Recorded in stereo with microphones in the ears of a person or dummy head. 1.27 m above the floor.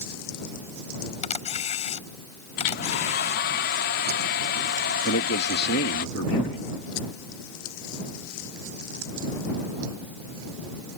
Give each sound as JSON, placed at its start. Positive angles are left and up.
{"t": 1.2, "sound": "a camera shutter", "side_deg": 35}
{"t": 2.6, "sound": "a hair dryer", "side_deg": 50}
{"t": 5.0, "sound": "a man speaking", "side_deg": 60}